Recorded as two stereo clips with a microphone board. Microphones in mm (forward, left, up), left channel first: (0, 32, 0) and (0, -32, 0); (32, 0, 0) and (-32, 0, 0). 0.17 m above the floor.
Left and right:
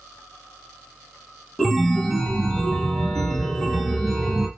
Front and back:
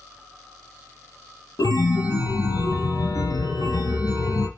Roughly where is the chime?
Ahead.